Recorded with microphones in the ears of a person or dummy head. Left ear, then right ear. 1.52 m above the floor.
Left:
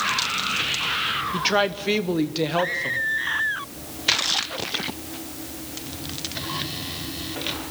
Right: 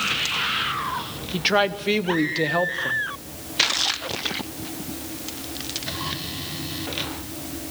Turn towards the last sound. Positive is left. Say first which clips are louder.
# right 4 dB
turn(degrees=-5)  # may be behind; listen again after turning